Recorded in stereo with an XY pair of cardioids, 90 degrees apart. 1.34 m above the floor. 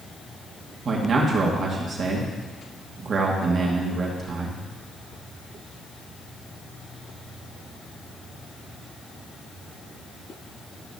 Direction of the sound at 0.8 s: 55° right.